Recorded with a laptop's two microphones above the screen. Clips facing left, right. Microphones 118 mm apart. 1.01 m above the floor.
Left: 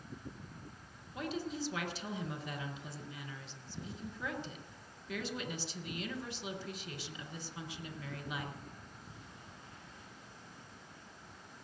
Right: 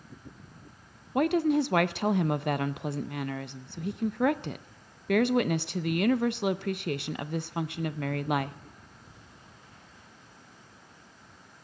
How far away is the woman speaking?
About 0.6 m.